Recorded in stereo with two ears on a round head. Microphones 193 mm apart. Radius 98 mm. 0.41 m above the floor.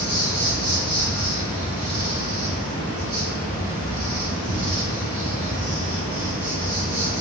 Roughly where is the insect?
Right.